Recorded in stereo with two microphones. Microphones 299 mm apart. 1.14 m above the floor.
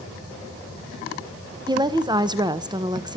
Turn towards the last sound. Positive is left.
turn(degrees=-15)  # may be behind; listen again after turning